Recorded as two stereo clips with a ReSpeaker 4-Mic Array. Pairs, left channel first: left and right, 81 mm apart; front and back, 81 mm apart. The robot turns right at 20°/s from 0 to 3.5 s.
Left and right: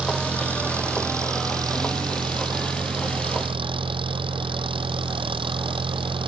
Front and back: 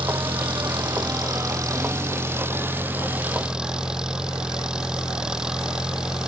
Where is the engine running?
170° right; by 6.3 s 100° right.